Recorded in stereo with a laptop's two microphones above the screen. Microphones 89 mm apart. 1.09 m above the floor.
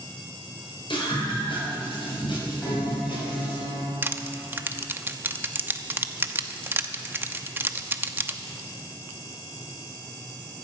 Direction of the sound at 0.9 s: 70° left (ahead or behind).